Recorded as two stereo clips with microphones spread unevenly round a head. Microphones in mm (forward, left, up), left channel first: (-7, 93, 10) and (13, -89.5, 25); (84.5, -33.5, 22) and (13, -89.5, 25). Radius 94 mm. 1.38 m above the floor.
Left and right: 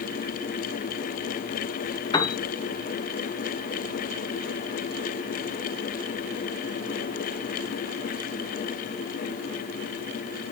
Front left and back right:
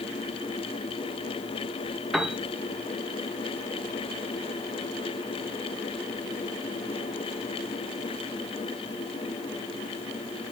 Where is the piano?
140° left, 1.0 m.